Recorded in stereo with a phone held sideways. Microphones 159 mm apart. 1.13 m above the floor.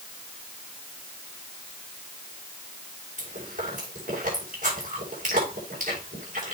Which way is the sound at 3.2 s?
55° right (ahead or behind).